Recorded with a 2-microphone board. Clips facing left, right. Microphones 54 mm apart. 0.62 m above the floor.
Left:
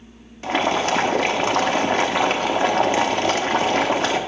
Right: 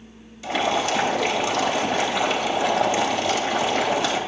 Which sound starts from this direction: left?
Boiling, at 0.4 s.